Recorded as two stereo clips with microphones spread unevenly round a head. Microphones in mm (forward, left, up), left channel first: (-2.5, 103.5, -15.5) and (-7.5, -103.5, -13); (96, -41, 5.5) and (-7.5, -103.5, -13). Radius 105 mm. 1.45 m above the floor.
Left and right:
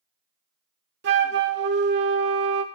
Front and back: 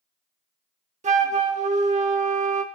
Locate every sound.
1.0 s a flute: 130° right, 1.2 m